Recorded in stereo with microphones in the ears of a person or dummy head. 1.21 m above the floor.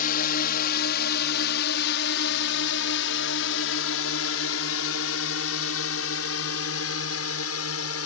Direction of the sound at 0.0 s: 50° left (ahead or behind).